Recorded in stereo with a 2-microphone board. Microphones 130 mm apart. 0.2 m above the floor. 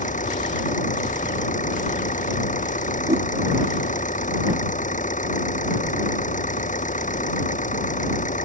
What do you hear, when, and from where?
0.0 s an engine running: 75° left (ahead or behind)
3.1 s a whoosh: 60° right (ahead or behind)